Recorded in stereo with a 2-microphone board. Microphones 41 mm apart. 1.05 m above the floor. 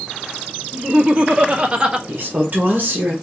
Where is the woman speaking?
50° right (ahead or behind), 1.4 m.